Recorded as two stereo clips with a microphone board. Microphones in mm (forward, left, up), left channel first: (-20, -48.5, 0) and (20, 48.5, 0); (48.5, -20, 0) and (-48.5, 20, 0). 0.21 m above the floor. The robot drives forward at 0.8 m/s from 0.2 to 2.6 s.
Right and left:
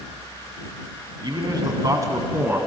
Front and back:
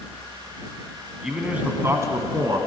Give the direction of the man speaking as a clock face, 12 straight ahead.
10 o'clock.